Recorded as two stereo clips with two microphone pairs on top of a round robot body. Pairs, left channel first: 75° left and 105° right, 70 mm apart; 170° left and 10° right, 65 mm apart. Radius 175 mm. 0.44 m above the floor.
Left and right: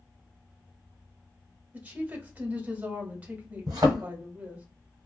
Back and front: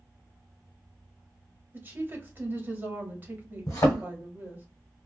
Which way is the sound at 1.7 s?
50° right.